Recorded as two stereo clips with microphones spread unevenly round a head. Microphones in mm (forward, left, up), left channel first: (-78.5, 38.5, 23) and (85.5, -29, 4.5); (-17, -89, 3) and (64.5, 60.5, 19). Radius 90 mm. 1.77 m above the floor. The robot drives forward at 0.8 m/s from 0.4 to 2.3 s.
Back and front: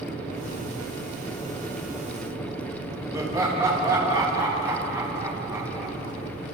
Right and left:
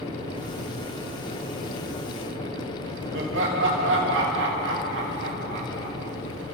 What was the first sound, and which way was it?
Laughter, 55° left.